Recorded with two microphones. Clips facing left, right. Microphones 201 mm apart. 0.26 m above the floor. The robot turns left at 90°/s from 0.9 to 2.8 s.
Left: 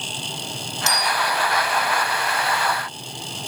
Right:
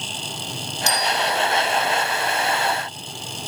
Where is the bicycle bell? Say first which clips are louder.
Right 1 dB; 25° left (ahead or behind), 9 m; by 1.2 s 55° left (ahead or behind), 9 m.